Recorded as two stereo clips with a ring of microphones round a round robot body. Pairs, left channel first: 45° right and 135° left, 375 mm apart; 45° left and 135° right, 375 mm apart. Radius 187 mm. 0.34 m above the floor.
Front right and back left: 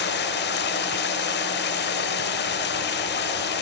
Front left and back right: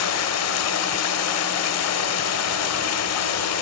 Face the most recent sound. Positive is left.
turn(degrees=10)